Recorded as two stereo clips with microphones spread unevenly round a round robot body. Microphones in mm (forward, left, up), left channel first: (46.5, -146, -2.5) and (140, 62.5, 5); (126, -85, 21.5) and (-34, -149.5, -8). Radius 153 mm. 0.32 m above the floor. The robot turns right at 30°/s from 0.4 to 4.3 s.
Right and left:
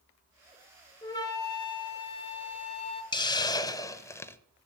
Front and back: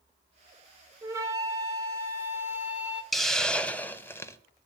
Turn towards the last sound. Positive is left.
turn(degrees=-55)